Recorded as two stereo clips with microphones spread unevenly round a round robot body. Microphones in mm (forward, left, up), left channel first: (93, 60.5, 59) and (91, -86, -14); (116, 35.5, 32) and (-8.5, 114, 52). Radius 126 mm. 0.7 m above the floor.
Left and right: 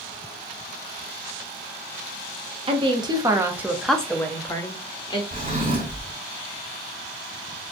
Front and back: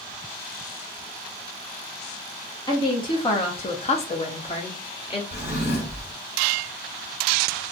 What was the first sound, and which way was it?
A woman speaking, 90° right.